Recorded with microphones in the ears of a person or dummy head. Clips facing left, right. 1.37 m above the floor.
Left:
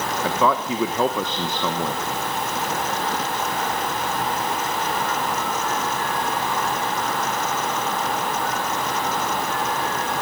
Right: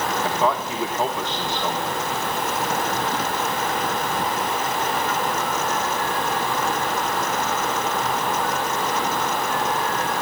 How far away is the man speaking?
About 1.0 m.